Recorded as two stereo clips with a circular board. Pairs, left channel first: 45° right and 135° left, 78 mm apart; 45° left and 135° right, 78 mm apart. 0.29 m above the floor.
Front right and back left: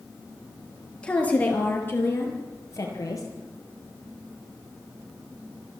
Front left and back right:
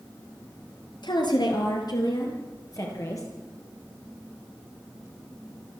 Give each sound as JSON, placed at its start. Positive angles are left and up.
{"t": 1.0, "sound": "a woman speaking", "azimuth_deg": 30, "distance_m": 4.5}